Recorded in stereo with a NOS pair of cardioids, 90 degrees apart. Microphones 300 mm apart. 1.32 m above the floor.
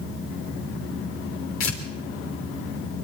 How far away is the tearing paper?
About 3.5 m.